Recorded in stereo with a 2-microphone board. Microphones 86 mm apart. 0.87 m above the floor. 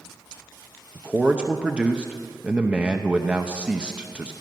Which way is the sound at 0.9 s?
10° right (ahead or behind).